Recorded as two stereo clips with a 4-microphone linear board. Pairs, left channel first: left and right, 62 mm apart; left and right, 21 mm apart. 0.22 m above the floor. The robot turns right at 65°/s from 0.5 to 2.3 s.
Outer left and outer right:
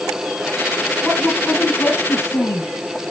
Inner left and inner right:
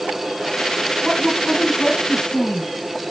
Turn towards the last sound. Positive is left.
turn(degrees=85)